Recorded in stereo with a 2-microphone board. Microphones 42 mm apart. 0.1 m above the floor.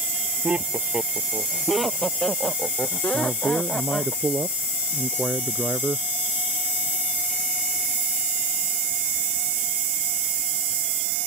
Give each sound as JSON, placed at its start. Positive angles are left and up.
{"t": 0.4, "sound": "laughter", "side_deg": -30}
{"t": 3.1, "sound": "a man speaking", "side_deg": -15}